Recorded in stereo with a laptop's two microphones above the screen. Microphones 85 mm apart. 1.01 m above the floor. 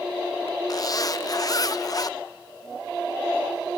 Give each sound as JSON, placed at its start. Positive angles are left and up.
{"t": 0.7, "sound": "a zipper", "side_deg": 45, "distance_m": 0.6}